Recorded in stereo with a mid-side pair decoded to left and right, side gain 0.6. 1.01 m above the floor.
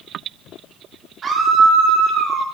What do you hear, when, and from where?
1.2 s a scream: 35° right, 2 m; by 2.4 s 50° right, 3.5 m